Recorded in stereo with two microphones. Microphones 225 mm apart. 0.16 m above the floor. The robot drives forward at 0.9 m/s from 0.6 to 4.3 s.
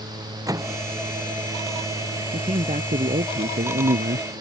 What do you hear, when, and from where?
0.5 s a microwave: 15° right (ahead or behind)
2.3 s a man speaking: 30° right (ahead or behind); by 4.3 s 50° right (ahead or behind)